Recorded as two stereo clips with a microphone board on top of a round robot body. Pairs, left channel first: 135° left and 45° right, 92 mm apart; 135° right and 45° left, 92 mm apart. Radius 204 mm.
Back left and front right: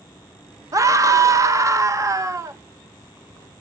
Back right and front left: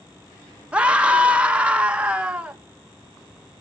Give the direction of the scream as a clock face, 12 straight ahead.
1 o'clock.